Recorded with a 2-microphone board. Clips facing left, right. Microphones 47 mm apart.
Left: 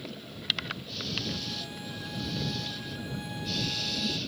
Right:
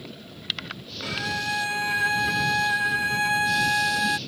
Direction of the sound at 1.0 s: 85° right.